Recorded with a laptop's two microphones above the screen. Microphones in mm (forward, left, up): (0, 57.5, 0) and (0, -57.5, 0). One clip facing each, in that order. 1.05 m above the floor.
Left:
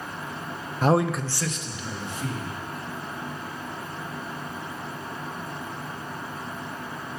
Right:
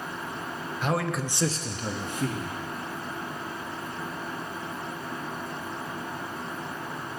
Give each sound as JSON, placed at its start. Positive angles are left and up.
{"t": 0.8, "sound": "a man speaking", "side_deg": 45, "distance_m": 0.5}